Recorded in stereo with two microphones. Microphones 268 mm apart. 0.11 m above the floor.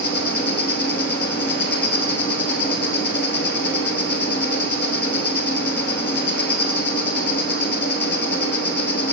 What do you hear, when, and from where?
0.0 s an insect: 40° left (ahead or behind), 0.7 m